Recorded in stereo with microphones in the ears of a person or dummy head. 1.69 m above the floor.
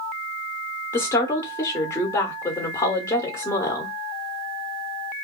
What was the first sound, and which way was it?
A woman speaking, 15° left (ahead or behind).